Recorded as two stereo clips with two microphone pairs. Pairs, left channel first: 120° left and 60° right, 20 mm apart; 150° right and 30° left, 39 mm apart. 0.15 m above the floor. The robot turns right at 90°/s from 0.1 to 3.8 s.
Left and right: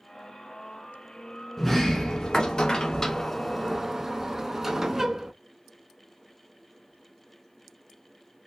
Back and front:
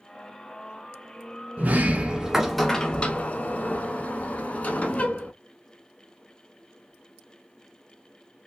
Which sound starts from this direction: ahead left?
A sliding door, at 1.6 s.